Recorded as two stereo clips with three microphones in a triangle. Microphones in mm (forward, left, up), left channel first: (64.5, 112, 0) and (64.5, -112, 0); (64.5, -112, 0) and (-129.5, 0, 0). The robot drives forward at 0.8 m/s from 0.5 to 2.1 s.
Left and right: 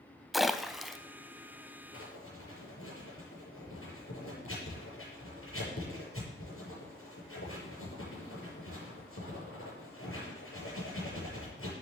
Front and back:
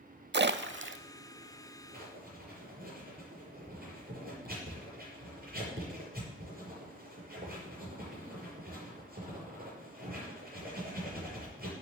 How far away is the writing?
About 6 m.